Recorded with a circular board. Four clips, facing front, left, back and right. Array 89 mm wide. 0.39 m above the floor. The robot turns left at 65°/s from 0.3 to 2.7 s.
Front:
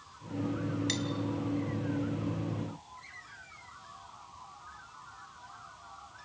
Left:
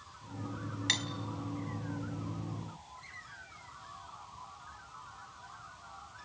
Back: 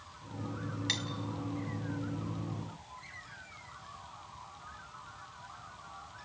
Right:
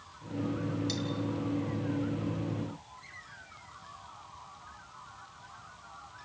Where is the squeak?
I don't hear a squeak.